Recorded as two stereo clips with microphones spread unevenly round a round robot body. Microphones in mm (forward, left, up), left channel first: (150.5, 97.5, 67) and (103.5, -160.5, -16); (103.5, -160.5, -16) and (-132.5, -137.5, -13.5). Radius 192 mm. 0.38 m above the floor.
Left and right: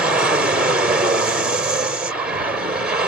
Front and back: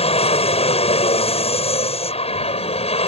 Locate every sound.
0.0 s an aircraft: 45° right